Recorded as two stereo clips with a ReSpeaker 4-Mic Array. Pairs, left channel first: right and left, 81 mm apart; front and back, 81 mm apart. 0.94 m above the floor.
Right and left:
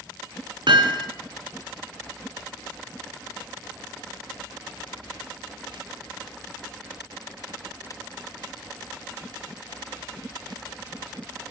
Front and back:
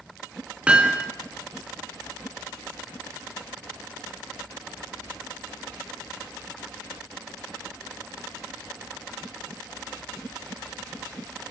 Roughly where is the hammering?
Left.